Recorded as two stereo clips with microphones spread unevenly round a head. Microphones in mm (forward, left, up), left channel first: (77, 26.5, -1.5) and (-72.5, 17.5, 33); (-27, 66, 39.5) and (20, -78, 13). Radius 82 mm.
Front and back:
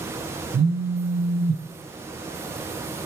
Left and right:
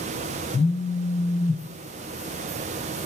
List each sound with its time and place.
0.5 s a phone buzzing: 160° left, 0.5 m